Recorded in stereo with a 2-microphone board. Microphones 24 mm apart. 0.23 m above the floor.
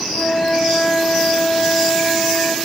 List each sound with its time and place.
0.1 s a flute: 85° left, 6.5 m